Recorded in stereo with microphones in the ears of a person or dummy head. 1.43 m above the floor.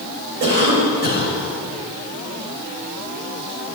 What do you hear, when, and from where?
0.4 s a cough: 40° right (ahead or behind), 4 m